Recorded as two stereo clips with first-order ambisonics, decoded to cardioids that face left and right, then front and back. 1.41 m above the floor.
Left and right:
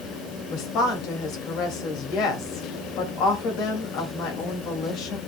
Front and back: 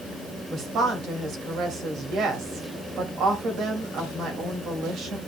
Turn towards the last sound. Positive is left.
turn(degrees=130)